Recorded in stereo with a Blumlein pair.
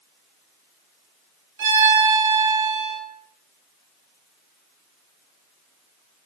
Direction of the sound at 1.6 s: 65° right.